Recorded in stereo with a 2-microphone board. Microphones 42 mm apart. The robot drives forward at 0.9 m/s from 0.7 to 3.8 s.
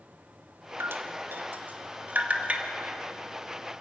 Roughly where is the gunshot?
I don't hear a gunshot.